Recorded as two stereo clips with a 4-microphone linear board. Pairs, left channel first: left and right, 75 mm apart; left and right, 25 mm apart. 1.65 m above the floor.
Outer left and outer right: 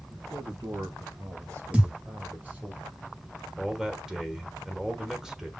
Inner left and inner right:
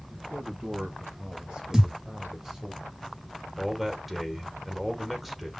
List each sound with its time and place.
0.1 s a man speaking: 65° right (ahead or behind), 2 m; by 2.7 s 20° right (ahead or behind), 2 m
1.7 s a thud: 15° right (ahead or behind), 2.5 m
3.6 s a man speaking: 10° right (ahead or behind), 1.6 m